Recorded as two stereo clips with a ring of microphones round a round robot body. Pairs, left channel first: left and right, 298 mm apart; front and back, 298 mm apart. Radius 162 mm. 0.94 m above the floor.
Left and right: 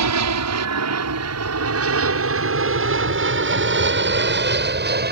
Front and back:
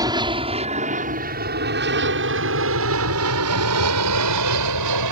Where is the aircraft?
105° right; by 5.1 s 145° right.